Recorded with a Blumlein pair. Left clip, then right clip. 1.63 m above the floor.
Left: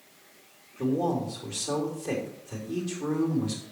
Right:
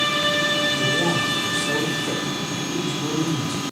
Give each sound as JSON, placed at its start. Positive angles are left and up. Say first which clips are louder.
{"t": 0.8, "sound": "a man speaking", "louder": "right 8 dB", "azimuth_deg": 0, "distance_m": 3.5}